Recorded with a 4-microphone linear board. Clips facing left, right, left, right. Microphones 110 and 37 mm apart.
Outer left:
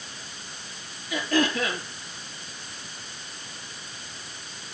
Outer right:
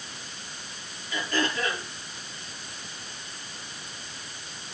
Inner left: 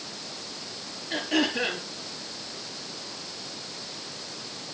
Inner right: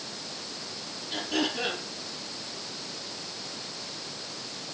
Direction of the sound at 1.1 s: 70° left (ahead or behind).